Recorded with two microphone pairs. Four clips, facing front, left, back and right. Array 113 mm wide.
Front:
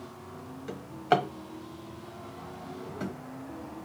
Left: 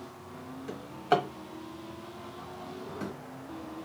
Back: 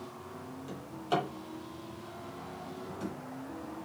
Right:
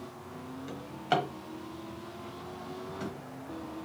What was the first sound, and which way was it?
A drawer, 5° left.